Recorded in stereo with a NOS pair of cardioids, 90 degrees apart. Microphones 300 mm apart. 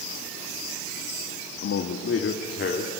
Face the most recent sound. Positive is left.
turn(degrees=35)